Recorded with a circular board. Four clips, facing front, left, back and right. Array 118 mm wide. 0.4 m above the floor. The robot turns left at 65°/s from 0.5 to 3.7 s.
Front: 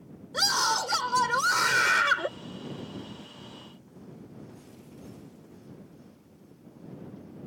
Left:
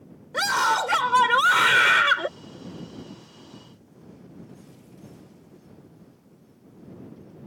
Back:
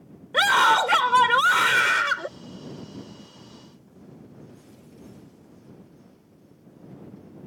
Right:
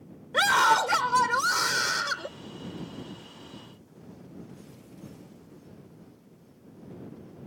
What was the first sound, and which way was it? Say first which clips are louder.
A scream: right 1 dB, back 10 dB; 165° right.